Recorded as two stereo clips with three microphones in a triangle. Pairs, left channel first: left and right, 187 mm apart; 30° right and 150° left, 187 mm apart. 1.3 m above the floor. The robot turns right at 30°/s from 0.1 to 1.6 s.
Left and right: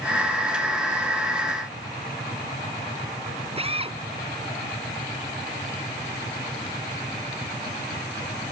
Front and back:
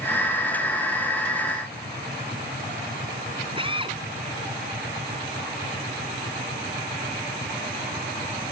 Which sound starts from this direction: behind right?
A drill, at 3.6 s.